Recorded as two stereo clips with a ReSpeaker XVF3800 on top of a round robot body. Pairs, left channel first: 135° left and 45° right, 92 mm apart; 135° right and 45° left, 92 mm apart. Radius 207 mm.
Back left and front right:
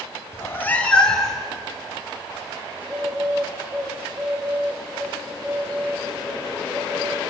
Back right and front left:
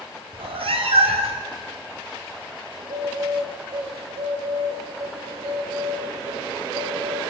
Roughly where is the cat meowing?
Left.